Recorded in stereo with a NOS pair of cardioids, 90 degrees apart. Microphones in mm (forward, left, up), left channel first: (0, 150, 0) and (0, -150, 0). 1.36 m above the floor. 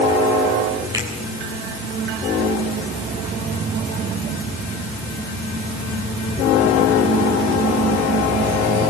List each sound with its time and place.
0.9 s a finger snap: 10° right, 7.5 m